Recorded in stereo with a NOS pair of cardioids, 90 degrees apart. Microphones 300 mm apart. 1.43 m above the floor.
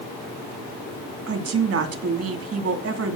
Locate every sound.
1.3 s a woman speaking: 50° right, 2.5 m